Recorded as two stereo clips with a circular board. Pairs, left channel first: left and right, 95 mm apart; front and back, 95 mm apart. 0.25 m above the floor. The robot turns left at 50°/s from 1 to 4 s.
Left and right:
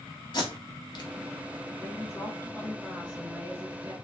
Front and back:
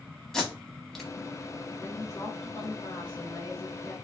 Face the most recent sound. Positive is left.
turn(degrees=-60)